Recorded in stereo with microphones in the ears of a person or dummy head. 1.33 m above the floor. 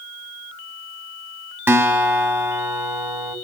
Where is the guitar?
15° right (ahead or behind), 1.7 m.